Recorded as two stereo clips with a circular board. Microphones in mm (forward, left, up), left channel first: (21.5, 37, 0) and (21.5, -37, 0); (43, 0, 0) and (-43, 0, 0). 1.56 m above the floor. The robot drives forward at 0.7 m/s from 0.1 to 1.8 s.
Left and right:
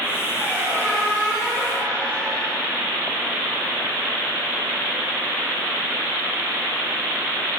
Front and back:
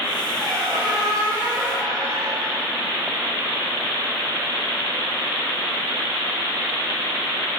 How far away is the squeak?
About 2.5 m.